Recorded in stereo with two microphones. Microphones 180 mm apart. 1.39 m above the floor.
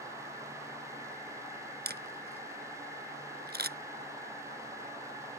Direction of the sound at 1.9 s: 65° right (ahead or behind).